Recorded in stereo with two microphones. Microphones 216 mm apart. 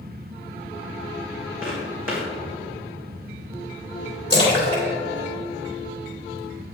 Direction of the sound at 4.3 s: 50° left (ahead or behind).